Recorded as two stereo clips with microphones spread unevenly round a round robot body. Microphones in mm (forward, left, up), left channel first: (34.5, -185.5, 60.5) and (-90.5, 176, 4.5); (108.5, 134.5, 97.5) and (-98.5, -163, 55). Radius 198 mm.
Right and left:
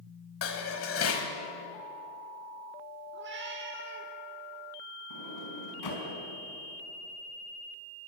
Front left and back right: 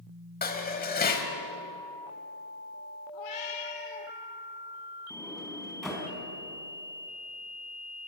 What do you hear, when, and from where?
0.4 s dishes clattering: 10° right, 2 m
3.1 s a cat meowing: 45° left, 3 m
5.1 s a sliding door: 35° right, 5 m